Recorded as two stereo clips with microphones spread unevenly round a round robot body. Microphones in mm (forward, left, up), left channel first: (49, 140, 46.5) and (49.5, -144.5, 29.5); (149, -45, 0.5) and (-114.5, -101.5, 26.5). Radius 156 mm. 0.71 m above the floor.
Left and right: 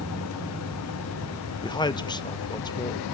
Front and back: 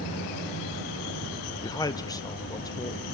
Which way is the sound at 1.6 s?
35° left.